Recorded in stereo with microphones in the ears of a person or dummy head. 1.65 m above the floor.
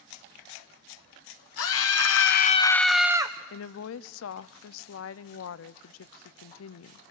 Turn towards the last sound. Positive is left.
turn(degrees=85)